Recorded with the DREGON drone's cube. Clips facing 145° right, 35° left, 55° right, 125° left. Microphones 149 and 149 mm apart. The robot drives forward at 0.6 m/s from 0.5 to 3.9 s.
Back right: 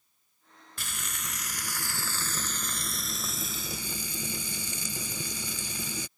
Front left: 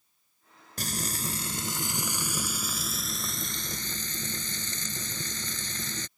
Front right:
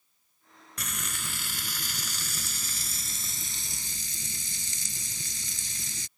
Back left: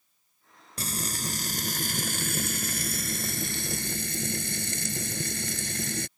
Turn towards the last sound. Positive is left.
turn(degrees=135)